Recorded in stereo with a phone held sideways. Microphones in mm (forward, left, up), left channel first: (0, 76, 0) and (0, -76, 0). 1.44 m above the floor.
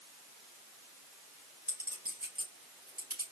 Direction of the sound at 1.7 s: 75° right (ahead or behind).